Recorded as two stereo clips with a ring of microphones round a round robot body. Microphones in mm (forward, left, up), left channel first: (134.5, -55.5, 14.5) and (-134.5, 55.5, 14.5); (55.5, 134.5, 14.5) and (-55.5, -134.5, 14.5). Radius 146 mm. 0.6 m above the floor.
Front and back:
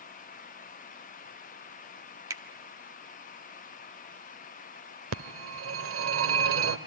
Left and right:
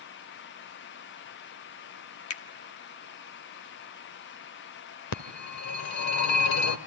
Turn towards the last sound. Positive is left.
turn(degrees=110)